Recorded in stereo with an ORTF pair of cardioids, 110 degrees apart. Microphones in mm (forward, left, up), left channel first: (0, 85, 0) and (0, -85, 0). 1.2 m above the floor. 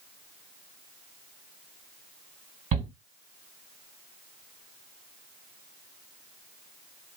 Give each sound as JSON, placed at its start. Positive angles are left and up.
{"t": 2.7, "sound": "a shout", "azimuth_deg": -45, "distance_m": 1.8}